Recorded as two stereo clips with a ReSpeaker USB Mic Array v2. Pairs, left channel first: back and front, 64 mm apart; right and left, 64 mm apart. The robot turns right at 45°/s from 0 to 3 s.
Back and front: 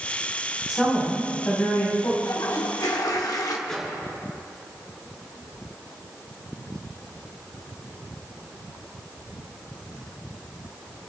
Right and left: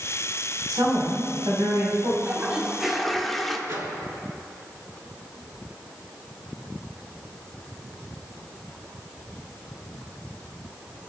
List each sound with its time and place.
0.7 s a woman speaking: 80° left, 4.5 m; by 2.1 s 145° left, 4.5 m
2.2 s a toilet flushing: 145° left, 1.1 m; by 3.6 s straight behind, 1.1 m
3.7 s a microwave: 100° left, 2.5 m